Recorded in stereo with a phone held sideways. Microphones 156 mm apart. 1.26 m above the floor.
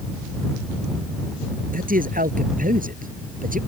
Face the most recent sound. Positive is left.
turn(degrees=-60)  # may be behind; listen again after turning